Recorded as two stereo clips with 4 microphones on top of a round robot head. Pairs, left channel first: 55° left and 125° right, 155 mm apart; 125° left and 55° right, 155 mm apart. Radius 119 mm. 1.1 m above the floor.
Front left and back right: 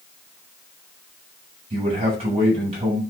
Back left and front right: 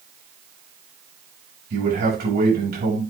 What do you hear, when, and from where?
1.7 s a man speaking: 75° right, 5.5 m